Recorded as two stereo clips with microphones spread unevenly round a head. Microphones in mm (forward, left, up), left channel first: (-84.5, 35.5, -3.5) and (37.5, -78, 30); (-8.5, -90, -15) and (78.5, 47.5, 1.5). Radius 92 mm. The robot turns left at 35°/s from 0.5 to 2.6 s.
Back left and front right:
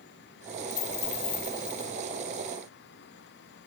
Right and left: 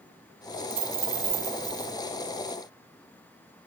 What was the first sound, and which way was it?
A dropped coin, 90° left.